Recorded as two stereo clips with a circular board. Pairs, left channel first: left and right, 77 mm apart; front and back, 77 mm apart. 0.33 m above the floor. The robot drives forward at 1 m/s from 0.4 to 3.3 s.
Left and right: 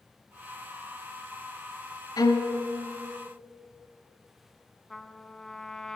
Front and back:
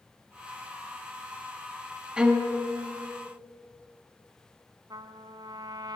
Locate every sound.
2.2 s a violin: 105° left, 1.5 m; by 2.5 s 115° left, 1.6 m
4.9 s a trumpet: 175° left, 0.7 m